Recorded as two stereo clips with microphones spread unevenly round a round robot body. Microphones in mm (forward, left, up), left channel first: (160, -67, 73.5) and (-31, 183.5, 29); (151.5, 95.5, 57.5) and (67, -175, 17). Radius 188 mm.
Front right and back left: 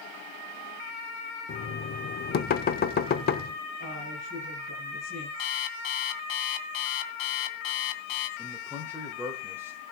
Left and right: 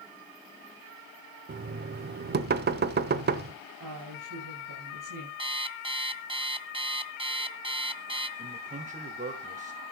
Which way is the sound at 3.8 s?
120° right.